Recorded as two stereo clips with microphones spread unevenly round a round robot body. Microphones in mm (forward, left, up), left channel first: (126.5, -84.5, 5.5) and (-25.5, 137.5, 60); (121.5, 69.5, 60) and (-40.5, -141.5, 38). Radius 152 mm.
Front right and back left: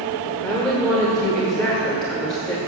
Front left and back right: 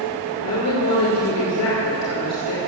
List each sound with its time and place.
0.4 s a woman speaking: 30° left, 2.5 m